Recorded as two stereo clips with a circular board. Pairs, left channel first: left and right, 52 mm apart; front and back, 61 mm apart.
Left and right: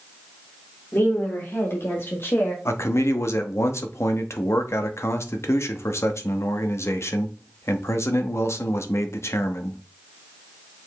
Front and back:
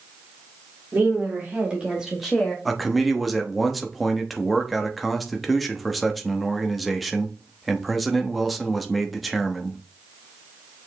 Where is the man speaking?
90° left, 1.0 m.